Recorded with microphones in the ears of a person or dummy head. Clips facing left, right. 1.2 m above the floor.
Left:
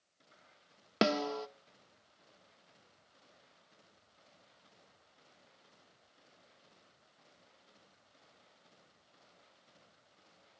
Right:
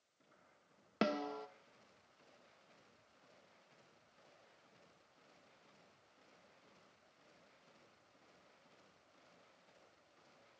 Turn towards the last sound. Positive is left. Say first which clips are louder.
# left 7 dB
turn(degrees=65)  # may be behind; listen again after turning